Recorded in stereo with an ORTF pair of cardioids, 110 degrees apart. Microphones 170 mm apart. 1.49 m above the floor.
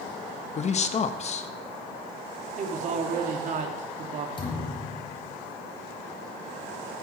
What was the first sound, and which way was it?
A man speaking, 40° left.